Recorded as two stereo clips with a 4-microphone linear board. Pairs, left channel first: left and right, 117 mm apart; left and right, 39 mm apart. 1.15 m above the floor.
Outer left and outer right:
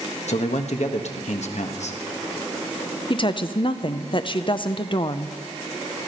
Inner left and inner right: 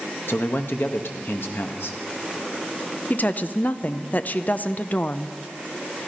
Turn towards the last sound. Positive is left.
turn(degrees=45)  # may be behind; listen again after turning